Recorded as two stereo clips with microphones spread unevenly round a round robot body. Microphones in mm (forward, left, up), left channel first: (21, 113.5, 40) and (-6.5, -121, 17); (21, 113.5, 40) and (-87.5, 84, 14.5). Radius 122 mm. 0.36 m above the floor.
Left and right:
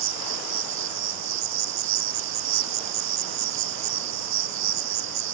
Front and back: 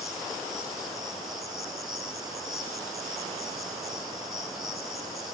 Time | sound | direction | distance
0.0 | an insect | 75° right | 0.9 m